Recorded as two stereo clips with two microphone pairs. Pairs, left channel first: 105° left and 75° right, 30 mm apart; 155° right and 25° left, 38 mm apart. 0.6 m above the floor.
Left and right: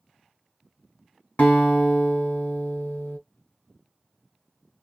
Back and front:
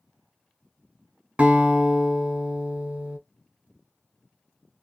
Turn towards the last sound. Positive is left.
turn(degrees=85)